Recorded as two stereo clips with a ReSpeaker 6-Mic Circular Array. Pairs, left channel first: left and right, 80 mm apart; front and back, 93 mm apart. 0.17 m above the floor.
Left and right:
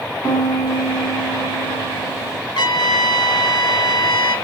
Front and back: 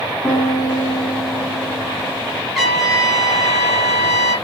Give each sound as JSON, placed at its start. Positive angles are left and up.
{"t": 0.2, "sound": "a piano", "azimuth_deg": 70, "distance_m": 2.5}
{"t": 2.5, "sound": "a trumpet", "azimuth_deg": 90, "distance_m": 0.9}